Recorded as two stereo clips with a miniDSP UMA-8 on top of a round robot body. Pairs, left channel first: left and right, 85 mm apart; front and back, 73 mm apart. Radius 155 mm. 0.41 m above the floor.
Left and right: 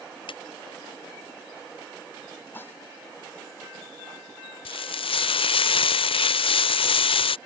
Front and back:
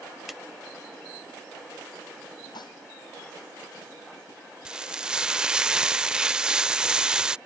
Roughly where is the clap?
Left.